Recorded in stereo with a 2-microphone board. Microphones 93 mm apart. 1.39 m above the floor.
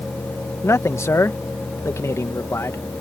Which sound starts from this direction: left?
A man speaking, at 0.6 s.